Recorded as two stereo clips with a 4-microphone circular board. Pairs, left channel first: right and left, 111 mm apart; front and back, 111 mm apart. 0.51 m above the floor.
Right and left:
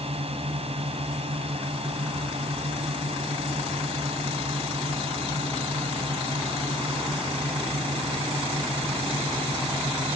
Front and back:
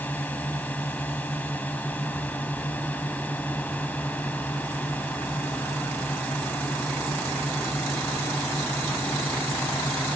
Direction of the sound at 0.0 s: 75° left.